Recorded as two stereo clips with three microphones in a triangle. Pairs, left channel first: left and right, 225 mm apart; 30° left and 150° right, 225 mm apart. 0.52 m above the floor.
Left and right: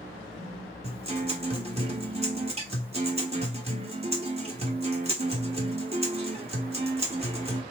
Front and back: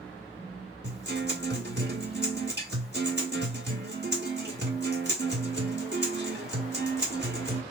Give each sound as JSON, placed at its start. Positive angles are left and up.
{"t": 0.8, "sound": "a guitar", "azimuth_deg": -145, "distance_m": 1.4}